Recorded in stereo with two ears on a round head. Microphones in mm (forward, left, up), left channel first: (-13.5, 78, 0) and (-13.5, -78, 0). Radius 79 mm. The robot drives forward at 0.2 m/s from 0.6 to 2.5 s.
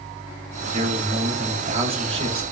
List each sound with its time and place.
0.7 s a man speaking: 40° right (ahead or behind), 0.8 m; by 2.4 s 35° right (ahead or behind), 0.9 m